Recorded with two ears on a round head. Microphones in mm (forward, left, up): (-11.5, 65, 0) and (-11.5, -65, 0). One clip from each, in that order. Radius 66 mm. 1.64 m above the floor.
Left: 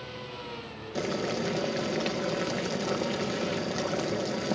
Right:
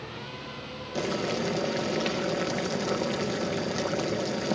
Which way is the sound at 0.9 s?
5° right (ahead or behind).